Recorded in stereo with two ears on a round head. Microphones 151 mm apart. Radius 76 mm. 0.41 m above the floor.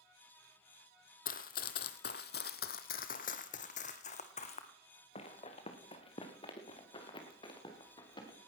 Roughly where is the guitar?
No guitar in this recording.